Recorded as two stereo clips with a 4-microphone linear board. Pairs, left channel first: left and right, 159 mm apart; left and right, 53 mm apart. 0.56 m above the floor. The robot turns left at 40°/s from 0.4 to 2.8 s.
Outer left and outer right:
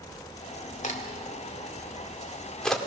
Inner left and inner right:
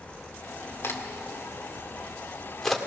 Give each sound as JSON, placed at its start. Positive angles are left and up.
{"t": 0.8, "sound": "a crack", "side_deg": 50, "distance_m": 1.9}